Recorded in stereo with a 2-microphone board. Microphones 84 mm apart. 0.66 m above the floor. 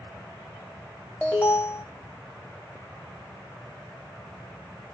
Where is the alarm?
20° left (ahead or behind), 1.0 m.